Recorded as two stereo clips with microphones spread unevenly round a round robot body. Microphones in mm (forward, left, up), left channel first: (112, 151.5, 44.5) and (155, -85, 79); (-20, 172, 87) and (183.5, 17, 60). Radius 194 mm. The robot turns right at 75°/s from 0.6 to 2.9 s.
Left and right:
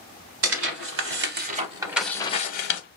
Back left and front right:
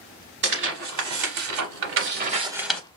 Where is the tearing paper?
100° right, 0.6 m; by 2.8 s 65° left, 0.6 m.